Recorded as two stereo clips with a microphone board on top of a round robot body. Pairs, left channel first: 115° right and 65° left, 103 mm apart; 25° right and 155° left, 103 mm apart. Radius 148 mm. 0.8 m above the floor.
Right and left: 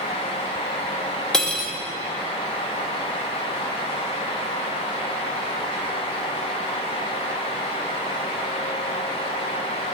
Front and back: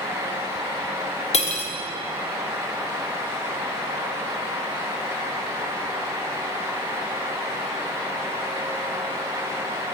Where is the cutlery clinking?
30° right, 0.6 m.